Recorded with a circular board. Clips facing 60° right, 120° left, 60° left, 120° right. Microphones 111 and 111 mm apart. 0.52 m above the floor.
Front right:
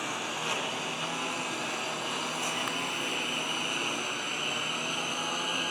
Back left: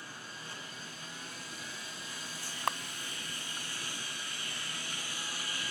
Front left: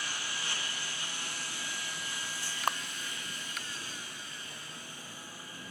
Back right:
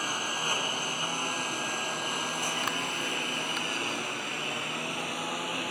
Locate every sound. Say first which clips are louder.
0.0 s a lawn mower: front right 13 dB, back right 8 dB; 75° right; by 5.7 s 100° right
2.7 s a camera shutter: back left 2 dB, front left 7 dB; 105° left